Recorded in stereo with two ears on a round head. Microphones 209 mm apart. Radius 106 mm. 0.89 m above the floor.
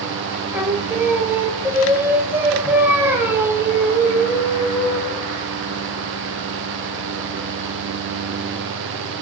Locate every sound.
0.5 s singing: 10° right (ahead or behind), 1.2 m